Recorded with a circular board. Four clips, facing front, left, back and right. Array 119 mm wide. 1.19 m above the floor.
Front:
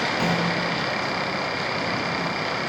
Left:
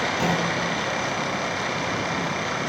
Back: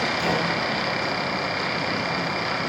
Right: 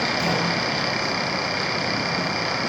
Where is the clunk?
40° left, 10 m.